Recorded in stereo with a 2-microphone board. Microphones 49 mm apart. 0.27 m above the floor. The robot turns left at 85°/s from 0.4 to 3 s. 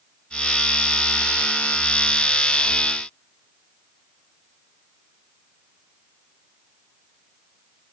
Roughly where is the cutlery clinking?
No cutlery clinking in this recording.